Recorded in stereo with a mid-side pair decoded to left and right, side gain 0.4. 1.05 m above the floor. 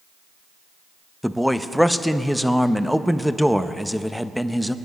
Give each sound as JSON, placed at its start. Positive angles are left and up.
{"t": 1.2, "sound": "a man speaking", "azimuth_deg": 0, "distance_m": 0.8}